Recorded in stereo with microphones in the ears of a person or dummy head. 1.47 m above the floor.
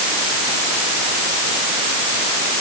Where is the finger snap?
No finger snap in this recording.